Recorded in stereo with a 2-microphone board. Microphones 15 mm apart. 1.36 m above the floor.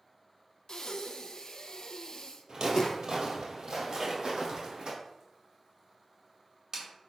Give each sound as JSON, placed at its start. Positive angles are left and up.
{"t": 0.7, "sound": "breathing", "side_deg": 45, "distance_m": 0.7}
{"t": 2.5, "sound": "footsteps", "side_deg": -55, "distance_m": 2.0}
{"t": 3.9, "sound": "a splash", "side_deg": -50, "distance_m": 2.5}